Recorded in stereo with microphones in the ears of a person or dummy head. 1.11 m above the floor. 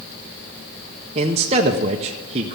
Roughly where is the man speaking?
Right.